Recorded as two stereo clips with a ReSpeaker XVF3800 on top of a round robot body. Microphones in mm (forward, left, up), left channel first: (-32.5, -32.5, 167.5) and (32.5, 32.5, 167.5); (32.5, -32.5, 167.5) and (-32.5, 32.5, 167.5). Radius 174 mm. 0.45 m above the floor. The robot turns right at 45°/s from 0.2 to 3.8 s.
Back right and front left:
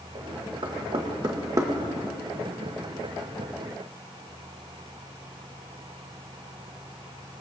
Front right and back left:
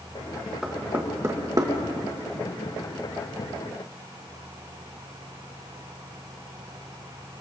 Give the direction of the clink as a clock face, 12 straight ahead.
I don't hear a clink.